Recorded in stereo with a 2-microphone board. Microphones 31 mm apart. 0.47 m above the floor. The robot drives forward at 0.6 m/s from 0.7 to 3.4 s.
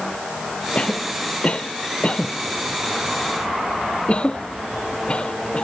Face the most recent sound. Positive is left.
turn(degrees=35)  # may be behind; listen again after turning